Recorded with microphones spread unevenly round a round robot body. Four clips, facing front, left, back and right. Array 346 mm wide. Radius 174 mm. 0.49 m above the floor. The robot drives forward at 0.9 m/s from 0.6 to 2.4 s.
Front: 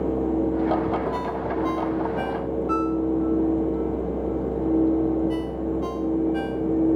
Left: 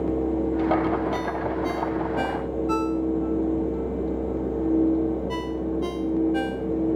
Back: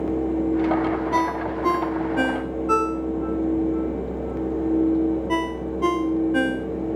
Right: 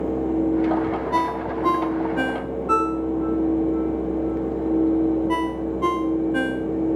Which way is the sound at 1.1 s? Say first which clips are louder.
Right 3 dB, back 3 dB; 140° right.